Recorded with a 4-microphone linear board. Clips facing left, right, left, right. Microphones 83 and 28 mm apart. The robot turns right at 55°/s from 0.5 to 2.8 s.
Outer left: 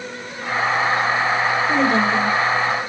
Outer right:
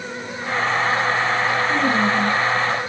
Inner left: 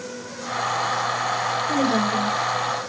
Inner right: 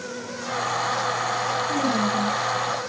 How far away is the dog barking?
No dog barking in this recording.